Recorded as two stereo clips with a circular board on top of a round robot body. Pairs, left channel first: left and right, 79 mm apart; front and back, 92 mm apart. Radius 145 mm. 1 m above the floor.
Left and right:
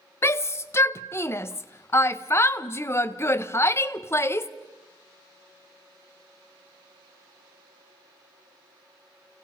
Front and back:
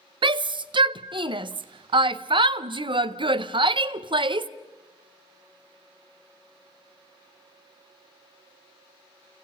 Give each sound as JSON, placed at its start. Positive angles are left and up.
{"t": 0.2, "sound": "a shout", "azimuth_deg": 150, "distance_m": 0.7}